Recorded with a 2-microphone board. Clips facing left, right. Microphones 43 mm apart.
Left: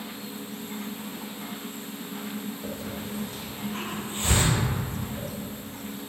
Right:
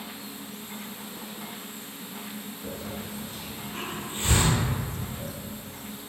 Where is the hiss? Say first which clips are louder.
Left 2 dB; 65° left (ahead or behind), 1.5 m.